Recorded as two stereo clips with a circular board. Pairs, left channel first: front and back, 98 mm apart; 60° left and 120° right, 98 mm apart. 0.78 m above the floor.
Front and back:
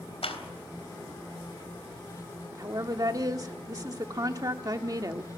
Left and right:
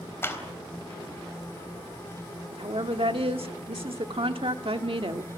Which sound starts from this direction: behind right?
A woman speaking, at 2.5 s.